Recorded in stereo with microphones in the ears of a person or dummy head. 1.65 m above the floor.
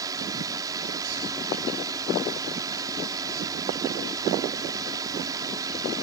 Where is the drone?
25° right (ahead or behind).